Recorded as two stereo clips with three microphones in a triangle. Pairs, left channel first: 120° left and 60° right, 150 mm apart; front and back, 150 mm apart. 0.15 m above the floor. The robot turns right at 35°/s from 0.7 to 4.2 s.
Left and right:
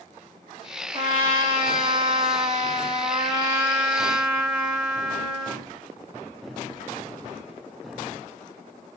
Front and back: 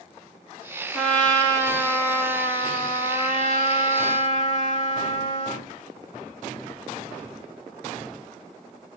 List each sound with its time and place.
0.9 s a trumpet: 90° right, 2 m; by 5.7 s 25° left, 2 m